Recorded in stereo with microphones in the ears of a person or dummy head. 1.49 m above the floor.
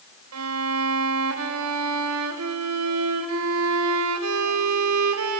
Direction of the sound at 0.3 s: 75° right (ahead or behind).